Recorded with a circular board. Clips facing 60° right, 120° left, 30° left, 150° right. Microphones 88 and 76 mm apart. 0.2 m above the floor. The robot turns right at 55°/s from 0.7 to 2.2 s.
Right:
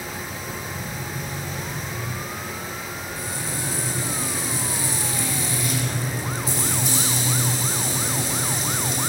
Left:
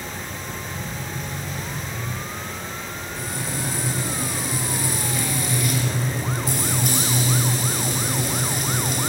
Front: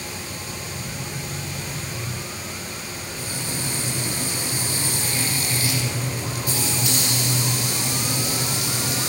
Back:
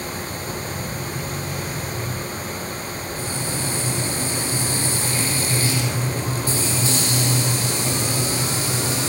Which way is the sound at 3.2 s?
155° left.